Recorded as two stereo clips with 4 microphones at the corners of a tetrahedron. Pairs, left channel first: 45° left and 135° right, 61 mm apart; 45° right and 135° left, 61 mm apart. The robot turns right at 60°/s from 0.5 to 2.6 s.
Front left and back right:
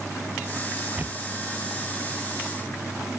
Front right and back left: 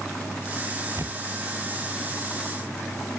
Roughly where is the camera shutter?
Behind.